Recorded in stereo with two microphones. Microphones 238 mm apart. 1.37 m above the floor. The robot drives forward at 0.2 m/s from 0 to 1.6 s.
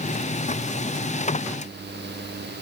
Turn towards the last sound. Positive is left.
No sound to turn to.